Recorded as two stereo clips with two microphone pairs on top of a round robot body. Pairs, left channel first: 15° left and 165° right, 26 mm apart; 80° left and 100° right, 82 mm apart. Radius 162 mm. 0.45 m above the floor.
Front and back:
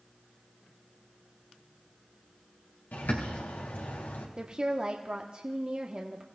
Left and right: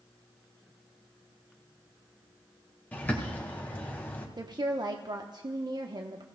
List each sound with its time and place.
2.9 s a bird: 10° left, 1.7 m
4.4 s a woman speaking: 115° right, 1.1 m